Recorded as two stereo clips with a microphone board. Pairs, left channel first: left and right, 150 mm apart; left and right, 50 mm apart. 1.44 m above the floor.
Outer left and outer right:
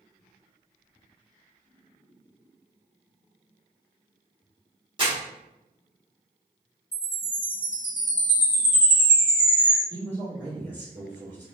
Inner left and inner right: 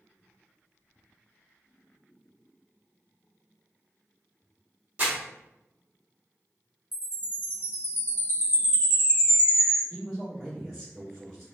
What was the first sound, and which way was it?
Crumpling, 30° right (ahead or behind).